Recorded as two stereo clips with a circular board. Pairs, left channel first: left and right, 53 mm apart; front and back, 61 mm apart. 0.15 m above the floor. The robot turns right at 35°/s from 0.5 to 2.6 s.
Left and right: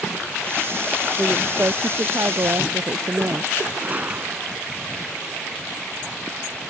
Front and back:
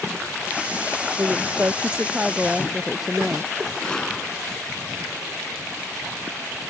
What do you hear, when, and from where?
1.2 s a woman speaking: 140° right; by 3.5 s 90° right
3.8 s a gunshot: 70° right